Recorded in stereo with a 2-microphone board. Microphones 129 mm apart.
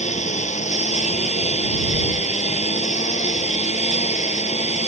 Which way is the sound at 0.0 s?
65° left (ahead or behind).